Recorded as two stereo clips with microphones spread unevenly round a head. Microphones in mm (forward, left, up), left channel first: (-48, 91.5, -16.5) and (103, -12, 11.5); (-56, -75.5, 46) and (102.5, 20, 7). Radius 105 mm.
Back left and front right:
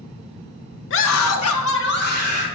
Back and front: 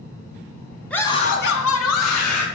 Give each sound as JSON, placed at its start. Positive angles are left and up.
{"t": 0.9, "sound": "a scream", "azimuth_deg": 125, "distance_m": 1.0}